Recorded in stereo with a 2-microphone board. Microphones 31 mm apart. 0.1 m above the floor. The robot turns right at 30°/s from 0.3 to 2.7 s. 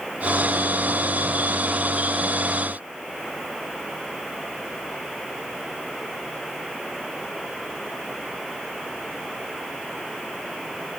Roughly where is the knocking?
No knocking in this recording.